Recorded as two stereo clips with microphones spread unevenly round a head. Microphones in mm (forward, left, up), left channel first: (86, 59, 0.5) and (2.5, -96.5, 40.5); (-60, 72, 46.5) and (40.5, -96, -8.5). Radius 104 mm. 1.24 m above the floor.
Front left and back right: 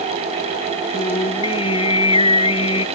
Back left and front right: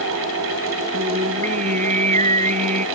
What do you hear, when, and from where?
0.9 s singing: straight ahead